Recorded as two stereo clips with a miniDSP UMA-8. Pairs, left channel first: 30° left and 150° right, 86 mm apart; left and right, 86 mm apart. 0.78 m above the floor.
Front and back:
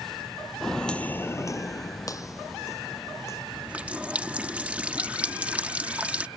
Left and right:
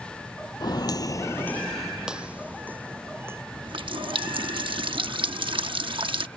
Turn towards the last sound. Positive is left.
turn(degrees=-75)